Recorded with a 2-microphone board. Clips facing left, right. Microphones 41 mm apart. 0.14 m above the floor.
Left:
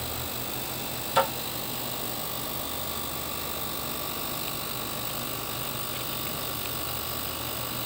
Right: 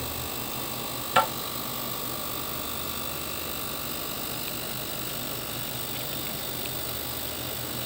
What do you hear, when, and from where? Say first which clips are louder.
1.2 s tapping: right 2 dB; 45° right (ahead or behind), 1.5 m